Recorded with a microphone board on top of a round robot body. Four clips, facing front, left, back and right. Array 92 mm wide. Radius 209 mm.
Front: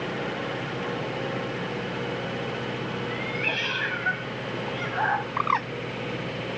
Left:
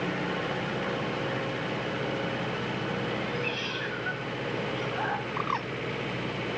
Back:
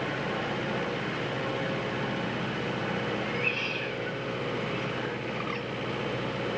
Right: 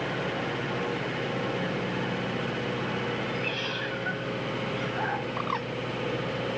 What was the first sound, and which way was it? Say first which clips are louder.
A cat meowing: even, front 1 dB; straight ahead.